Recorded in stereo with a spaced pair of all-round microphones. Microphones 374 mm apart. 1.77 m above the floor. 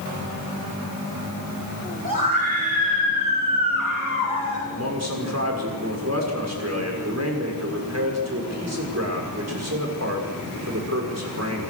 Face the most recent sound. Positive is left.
turn(degrees=-45)  # may be behind; listen again after turning